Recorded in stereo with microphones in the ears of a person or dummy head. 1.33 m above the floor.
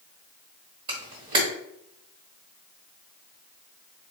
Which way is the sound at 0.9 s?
30° right (ahead or behind).